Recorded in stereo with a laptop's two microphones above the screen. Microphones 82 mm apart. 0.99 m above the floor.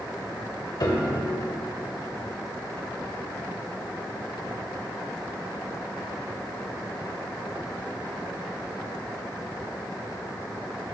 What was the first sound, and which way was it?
A piano, 50° left (ahead or behind).